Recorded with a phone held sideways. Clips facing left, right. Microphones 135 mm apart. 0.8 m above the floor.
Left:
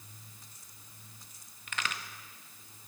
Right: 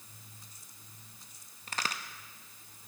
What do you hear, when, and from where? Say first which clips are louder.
1.7 s a crack: right 1 dB; 35° right (ahead or behind), 0.8 m